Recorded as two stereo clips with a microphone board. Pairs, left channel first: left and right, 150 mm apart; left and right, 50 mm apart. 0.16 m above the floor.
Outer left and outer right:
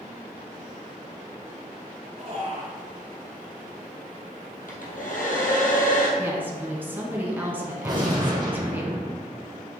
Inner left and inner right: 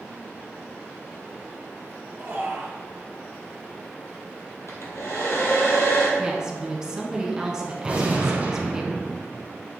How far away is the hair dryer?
About 1.6 m.